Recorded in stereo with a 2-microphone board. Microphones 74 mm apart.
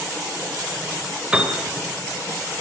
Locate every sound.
1.3 s a piano: 15° right (ahead or behind), 2.5 m